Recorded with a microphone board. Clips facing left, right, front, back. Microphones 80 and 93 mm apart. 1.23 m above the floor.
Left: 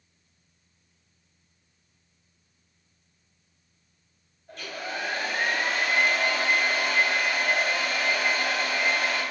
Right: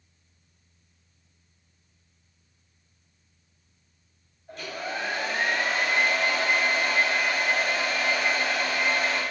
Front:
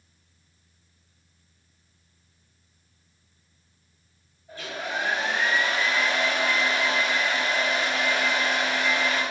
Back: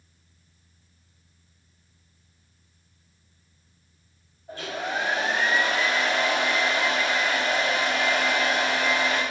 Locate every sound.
4.5 s a hair dryer: 175° right, 1.2 m